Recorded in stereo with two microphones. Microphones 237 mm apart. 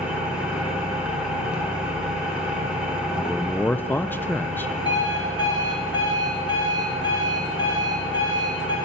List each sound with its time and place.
0.0 s an engine running: 5° right (ahead or behind), 3 m
3.2 s a man speaking: 10° left (ahead or behind), 0.5 m
4.8 s an alarm clock: 20° left (ahead or behind), 5 m